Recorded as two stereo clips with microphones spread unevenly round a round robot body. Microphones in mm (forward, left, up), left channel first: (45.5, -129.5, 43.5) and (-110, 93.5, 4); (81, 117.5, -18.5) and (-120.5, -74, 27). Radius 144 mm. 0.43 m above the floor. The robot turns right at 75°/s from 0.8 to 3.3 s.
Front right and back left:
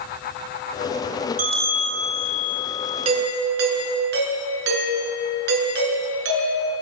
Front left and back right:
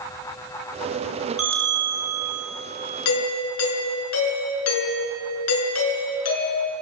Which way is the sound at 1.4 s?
175° right.